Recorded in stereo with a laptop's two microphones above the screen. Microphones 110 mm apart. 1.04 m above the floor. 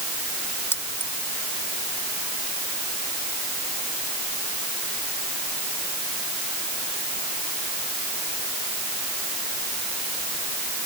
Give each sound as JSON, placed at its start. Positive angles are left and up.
{"t": 0.7, "sound": "keys jangling", "side_deg": 20}